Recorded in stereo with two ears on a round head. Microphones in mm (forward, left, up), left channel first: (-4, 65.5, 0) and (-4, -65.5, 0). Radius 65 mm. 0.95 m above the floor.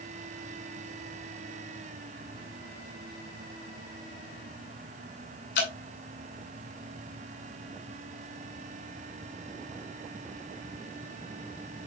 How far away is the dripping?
About 5 m.